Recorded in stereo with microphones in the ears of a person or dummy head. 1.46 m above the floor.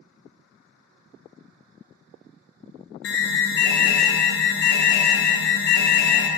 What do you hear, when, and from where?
3.0 s an alarm: 60° left (ahead or behind), 1.0 m